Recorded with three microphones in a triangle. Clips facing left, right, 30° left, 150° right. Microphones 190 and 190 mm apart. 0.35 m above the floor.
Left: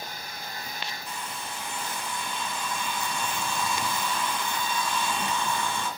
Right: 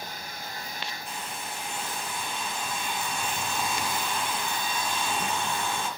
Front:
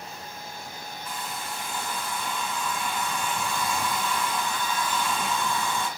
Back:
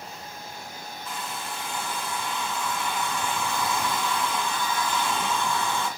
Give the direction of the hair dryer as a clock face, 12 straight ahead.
3 o'clock.